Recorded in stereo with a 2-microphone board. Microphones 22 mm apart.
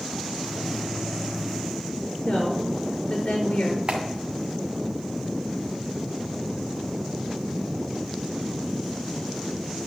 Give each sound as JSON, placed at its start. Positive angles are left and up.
{"t": 0.3, "sound": "a microwave", "side_deg": -5, "distance_m": 1.0}
{"t": 2.2, "sound": "a woman speaking", "side_deg": 55, "distance_m": 4.5}
{"t": 3.9, "sound": "a clap", "side_deg": -55, "distance_m": 2.0}